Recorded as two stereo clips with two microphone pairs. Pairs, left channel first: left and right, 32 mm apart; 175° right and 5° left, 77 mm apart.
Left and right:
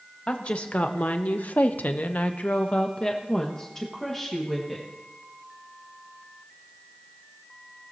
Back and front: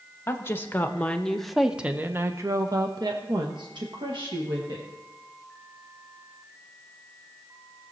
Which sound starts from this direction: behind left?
A woman speaking, at 0.3 s.